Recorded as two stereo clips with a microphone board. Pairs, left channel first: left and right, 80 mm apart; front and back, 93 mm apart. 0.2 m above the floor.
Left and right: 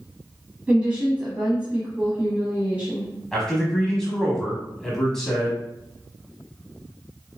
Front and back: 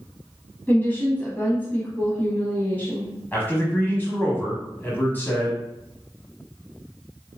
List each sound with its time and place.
0.7 s a woman speaking: 40° right, 1.1 m
3.3 s a man speaking: 15° left, 1.0 m